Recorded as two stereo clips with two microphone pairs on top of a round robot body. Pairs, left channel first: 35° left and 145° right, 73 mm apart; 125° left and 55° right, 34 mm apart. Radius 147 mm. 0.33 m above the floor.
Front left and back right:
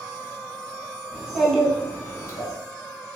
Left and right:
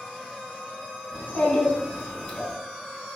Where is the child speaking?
140° left, 1.4 m; by 2.5 s 60° left, 1.1 m.